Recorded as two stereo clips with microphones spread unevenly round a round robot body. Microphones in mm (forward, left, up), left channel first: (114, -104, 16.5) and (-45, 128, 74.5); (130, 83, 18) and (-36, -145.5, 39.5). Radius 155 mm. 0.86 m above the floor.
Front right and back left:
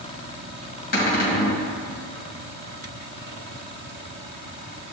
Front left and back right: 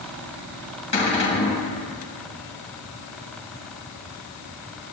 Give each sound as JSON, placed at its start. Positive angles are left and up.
{"t": 0.9, "sound": "a cupboard door", "azimuth_deg": 5, "distance_m": 4.5}